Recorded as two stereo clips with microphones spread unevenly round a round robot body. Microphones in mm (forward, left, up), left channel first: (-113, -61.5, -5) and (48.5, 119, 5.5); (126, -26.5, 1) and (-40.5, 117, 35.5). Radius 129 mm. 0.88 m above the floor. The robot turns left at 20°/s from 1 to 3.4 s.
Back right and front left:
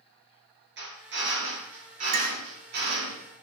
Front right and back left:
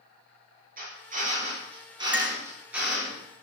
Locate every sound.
0.8 s a drill: 90° left, 6.5 m; by 3.1 s 50° left, 6.5 m
2.1 s a clink: 55° left, 1.4 m; by 2.4 s 50° left, 1.4 m